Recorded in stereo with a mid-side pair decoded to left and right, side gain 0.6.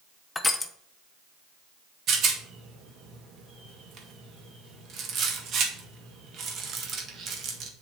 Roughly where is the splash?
No splash in this recording.